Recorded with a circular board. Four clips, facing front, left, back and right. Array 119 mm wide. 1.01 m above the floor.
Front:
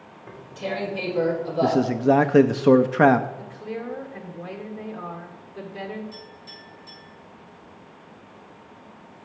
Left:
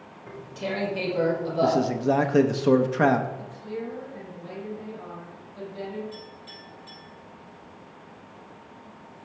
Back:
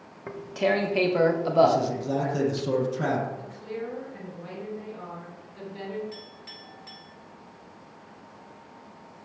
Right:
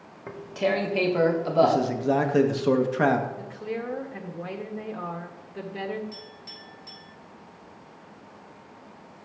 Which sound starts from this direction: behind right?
Tearing paper, at 0.3 s.